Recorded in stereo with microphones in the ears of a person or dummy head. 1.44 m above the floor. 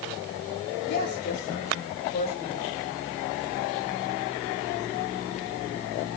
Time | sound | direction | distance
0.9 | a woman speaking | 55° left (ahead or behind) | 3.5 m